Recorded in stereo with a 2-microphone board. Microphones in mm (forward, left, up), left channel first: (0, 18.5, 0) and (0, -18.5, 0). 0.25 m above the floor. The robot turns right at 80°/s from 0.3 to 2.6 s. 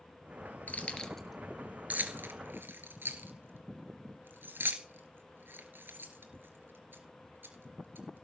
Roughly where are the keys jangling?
Left.